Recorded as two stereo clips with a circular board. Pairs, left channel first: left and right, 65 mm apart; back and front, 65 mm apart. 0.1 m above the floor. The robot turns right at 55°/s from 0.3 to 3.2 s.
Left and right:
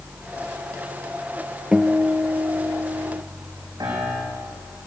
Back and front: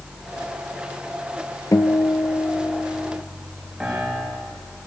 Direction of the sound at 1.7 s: 165° right.